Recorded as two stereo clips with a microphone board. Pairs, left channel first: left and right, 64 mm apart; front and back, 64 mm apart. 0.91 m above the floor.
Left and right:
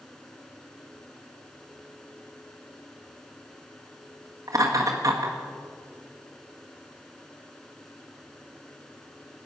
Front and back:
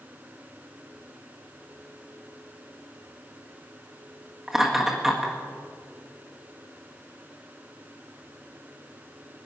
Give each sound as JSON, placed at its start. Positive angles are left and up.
{"t": 4.5, "sound": "laughter", "azimuth_deg": -100, "distance_m": 1.6}